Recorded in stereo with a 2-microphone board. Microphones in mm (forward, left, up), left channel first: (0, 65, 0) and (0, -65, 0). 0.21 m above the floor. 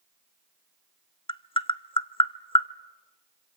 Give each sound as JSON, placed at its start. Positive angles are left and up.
{"t": 1.3, "sound": "tapping", "side_deg": 45, "distance_m": 0.5}